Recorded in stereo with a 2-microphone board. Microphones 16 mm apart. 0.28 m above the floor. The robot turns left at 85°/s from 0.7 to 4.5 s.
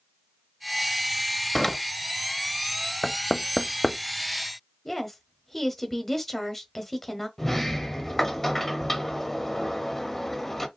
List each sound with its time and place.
1.6 s a door slam: 25° left (ahead or behind), 0.7 m; by 1.8 s 20° left (ahead or behind), 0.7 m
3.0 s knocking: 30° left (ahead or behind), 0.6 m; by 4.0 s 15° left (ahead or behind), 0.6 m
4.8 s a woman speaking: 10° left (ahead or behind), 1.2 m
7.4 s a sliding door: 15° left (ahead or behind), 1.0 m